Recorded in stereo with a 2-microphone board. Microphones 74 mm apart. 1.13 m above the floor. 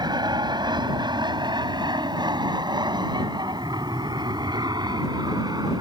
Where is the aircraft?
75° right (ahead or behind); by 5.8 s 65° right (ahead or behind).